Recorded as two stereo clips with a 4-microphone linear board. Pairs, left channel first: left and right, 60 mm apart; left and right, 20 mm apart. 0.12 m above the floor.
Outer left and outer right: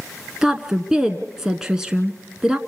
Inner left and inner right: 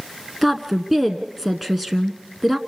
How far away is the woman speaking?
About 1.0 m.